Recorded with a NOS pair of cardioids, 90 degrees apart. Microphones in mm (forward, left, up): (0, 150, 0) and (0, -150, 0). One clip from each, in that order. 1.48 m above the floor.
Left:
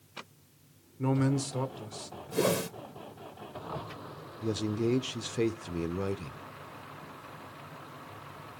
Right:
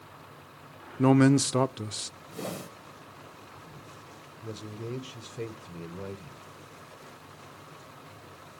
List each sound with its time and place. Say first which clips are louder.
1.0 s a man speaking: right 8 dB; 50° right, 0.6 m
2.3 s a whoosh: left 11 dB; 65° left, 1.5 m
4.4 s a man speaking: left 9 dB; 40° left, 0.7 m